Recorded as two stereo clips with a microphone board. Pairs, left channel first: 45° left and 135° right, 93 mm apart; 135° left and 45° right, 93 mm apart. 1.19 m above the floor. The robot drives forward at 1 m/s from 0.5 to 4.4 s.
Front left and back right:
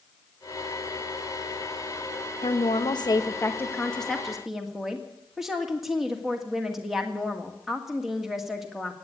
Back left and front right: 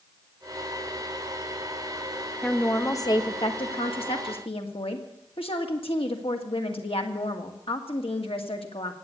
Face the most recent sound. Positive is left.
turn(degrees=140)